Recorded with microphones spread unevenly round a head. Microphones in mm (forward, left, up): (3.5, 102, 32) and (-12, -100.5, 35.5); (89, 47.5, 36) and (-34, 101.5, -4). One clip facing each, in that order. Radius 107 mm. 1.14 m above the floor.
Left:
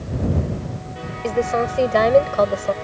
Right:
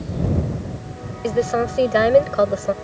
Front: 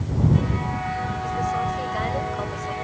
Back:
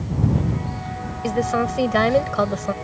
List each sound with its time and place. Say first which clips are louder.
1.2 s a woman speaking: right 1 dB, back 6 dB; 175° right